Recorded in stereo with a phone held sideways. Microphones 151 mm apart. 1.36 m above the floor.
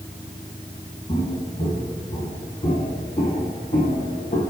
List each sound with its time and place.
1.1 s footsteps: 35° left (ahead or behind), 4 m; by 4.4 s 60° left (ahead or behind), 3 m